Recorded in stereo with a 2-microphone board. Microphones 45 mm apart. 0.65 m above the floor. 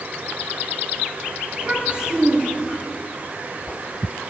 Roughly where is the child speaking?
Right.